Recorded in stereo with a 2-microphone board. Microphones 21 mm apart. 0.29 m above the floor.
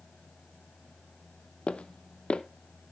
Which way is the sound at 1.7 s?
55° left (ahead or behind).